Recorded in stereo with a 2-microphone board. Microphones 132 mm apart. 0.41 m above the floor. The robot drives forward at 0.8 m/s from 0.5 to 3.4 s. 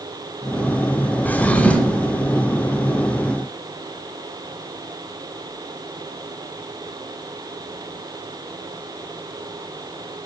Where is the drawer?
10° left (ahead or behind), 0.9 m; by 2.1 s 5° left (ahead or behind), 1.5 m.